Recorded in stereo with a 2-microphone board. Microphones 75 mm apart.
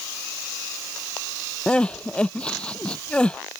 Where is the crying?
15° left (ahead or behind).